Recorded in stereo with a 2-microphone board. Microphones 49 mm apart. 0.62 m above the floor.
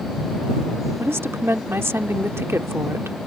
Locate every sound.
1.0 s a woman speaking: 60° right (ahead or behind)